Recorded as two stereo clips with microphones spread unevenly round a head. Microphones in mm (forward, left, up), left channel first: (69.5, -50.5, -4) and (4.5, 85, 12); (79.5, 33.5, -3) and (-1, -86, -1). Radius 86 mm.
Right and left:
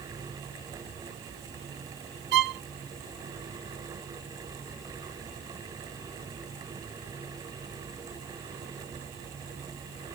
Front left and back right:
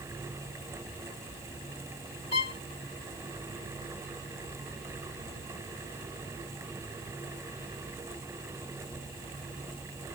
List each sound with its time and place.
2.3 s a violin: 115° left